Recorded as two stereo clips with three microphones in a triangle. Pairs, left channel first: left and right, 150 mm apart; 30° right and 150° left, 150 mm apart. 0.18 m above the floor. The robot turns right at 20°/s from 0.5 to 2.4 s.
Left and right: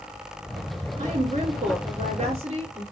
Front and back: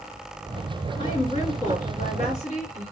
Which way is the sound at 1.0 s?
80° right.